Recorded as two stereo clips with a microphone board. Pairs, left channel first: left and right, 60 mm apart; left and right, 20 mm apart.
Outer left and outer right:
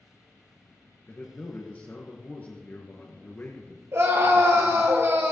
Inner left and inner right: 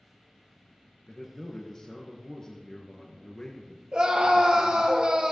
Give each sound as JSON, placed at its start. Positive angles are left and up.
{"t": 1.1, "sound": "a man speaking", "side_deg": 35, "distance_m": 1.8}
{"t": 3.9, "sound": "a scream", "side_deg": -50, "distance_m": 3.0}